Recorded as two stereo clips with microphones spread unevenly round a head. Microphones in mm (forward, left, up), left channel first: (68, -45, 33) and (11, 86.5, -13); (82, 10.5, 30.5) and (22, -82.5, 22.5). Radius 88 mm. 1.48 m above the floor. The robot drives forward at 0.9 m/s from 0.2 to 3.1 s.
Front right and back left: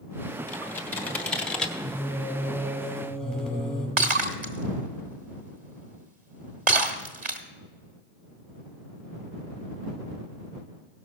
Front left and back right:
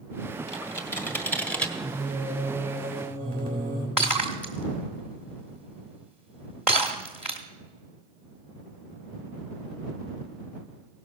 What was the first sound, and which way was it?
Typing on a keyboard, 5° right.